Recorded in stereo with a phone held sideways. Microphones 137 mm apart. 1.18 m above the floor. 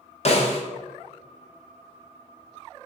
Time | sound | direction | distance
0.2 | a snare drum | 50° left (ahead or behind) | 0.7 m